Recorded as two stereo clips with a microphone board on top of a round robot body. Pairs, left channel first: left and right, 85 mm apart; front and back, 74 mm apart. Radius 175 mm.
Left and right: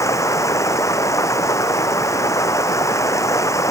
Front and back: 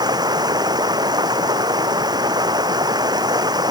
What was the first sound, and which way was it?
Running water, 145° left.